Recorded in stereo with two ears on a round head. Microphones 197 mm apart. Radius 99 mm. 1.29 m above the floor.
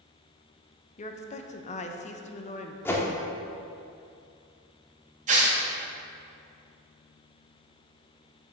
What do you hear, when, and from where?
1.0 s a woman speaking: 35° left (ahead or behind), 0.7 m
2.9 s a whoosh: 10° left (ahead or behind), 1.0 m
5.3 s tearing paper: 35° right (ahead or behind), 2.0 m